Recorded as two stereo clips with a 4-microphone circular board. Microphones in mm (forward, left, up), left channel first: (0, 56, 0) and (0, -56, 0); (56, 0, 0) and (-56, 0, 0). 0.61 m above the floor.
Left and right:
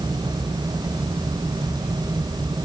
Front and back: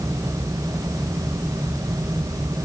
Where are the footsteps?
I don't hear footsteps.